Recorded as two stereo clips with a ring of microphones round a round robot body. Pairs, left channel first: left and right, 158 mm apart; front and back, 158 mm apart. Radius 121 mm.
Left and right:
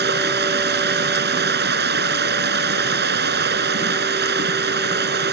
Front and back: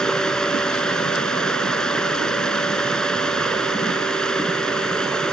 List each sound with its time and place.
0.0 s running water: 85° right